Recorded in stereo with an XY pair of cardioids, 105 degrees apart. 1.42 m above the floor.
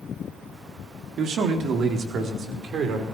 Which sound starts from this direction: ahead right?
A man speaking, at 1.2 s.